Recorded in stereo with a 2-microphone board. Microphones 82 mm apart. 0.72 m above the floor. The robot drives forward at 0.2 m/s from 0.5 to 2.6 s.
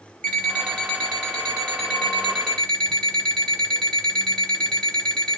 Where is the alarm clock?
10° left (ahead or behind), 1.6 m.